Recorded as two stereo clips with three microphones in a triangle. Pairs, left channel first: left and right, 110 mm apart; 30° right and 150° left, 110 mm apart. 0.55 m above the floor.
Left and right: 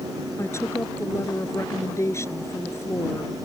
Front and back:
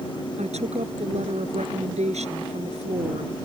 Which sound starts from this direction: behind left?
A woman speaking, at 0.4 s.